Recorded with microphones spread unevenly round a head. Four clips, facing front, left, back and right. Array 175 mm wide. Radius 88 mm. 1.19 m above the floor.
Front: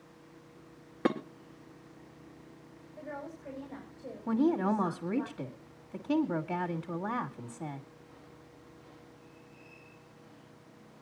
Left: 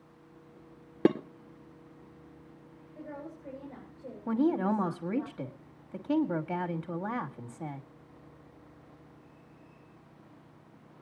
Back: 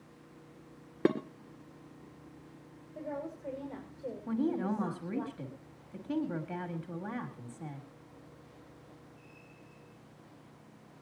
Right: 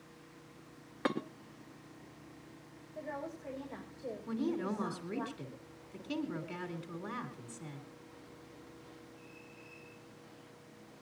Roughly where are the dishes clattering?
Left.